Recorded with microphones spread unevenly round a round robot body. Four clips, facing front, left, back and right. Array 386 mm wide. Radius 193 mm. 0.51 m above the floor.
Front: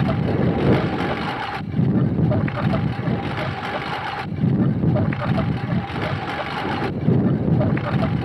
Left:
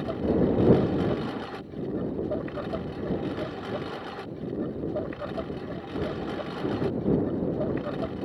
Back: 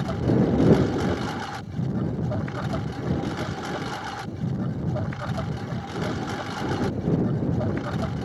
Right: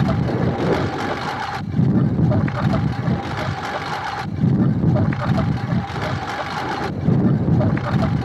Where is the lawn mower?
50° right.